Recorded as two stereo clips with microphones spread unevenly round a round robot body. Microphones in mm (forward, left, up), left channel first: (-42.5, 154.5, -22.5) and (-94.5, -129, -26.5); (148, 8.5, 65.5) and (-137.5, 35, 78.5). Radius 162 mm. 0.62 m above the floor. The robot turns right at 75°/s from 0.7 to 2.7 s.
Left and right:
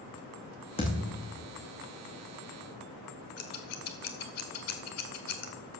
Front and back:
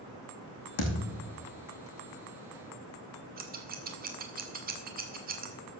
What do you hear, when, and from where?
0.8 s a thud: 5° left, 2.5 m; by 1.2 s 40° left, 2.5 m
3.4 s scissors: 115° left, 1.6 m